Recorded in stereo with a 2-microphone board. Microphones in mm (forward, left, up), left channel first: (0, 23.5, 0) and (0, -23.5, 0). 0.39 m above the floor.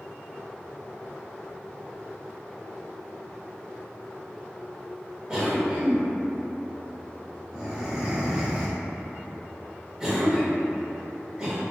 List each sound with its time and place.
5.3 s a cough: 15° right (ahead or behind), 0.9 m